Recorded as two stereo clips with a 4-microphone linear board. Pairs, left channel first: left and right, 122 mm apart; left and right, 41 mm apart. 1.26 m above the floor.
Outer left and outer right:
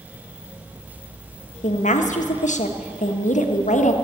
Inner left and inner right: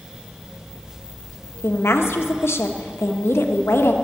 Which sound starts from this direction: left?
A woman speaking, at 1.6 s.